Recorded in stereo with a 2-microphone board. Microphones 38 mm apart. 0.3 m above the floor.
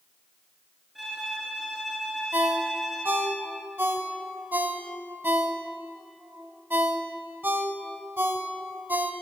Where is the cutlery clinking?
I don't hear cutlery clinking.